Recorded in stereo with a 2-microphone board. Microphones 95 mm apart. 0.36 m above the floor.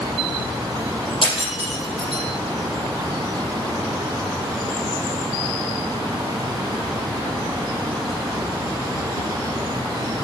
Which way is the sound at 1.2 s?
60° left (ahead or behind).